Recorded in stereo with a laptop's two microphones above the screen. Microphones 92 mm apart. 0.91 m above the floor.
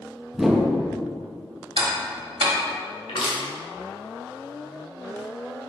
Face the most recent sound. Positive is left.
turn(degrees=70)  # may be behind; listen again after turning